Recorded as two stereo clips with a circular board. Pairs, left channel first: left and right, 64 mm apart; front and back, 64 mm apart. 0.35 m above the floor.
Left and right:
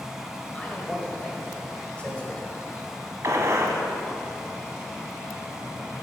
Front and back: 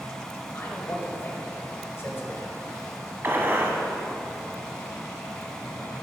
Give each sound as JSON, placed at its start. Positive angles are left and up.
{"t": 0.5, "sound": "a man speaking", "azimuth_deg": 25, "distance_m": 1.3}
{"t": 3.2, "sound": "a gunshot", "azimuth_deg": -125, "distance_m": 1.0}